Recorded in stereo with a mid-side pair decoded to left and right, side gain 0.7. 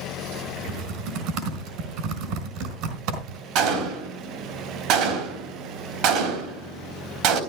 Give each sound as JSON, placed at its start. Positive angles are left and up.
{"t": 0.7, "sound": "typing on a keyboard", "azimuth_deg": -65, "distance_m": 4.0}
{"t": 3.5, "sound": "a gunshot", "azimuth_deg": -65, "distance_m": 3.5}